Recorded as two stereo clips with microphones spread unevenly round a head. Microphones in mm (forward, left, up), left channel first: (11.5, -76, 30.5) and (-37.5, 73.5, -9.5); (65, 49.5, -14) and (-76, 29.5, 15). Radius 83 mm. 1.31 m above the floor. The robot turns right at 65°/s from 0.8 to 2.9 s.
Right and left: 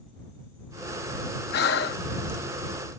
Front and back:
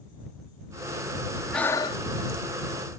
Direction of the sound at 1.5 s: 85° right.